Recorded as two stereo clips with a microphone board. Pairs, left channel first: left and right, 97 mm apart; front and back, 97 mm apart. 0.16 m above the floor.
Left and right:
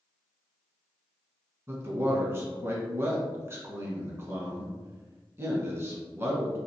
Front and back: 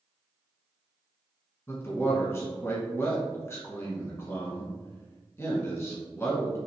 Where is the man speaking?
45° right, 1.3 m.